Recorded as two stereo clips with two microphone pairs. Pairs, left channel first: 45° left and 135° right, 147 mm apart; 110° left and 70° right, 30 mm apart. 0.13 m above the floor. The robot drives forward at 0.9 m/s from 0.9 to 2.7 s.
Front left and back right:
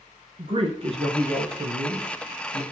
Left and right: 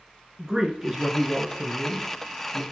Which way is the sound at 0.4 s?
130° right.